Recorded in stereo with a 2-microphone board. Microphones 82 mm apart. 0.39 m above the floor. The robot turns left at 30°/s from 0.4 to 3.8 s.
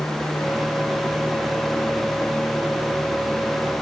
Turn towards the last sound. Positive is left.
No sound to turn to.